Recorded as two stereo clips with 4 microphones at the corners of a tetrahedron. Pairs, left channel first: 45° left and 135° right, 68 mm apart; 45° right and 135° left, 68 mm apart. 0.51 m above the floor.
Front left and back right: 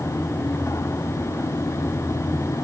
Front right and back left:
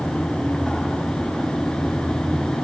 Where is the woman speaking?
No woman speaking in this recording.